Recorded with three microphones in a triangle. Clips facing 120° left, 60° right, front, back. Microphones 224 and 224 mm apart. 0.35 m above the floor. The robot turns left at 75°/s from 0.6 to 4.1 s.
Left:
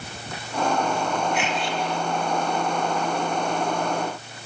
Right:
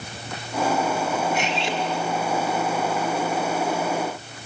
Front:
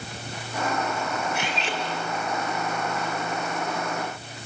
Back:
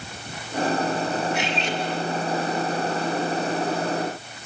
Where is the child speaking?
No child speaking in this recording.